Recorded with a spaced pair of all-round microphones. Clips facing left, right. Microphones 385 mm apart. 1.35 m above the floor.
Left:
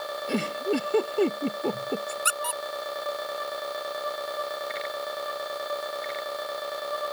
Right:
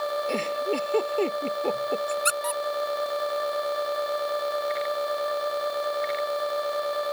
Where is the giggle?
25° left (ahead or behind).